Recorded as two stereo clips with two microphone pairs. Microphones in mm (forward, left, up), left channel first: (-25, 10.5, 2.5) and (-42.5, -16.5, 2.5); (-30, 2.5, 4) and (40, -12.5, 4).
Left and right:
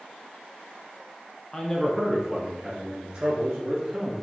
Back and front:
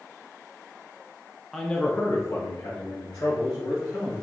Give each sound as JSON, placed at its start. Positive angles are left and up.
{"t": 1.5, "sound": "a man speaking", "azimuth_deg": 85, "distance_m": 0.6}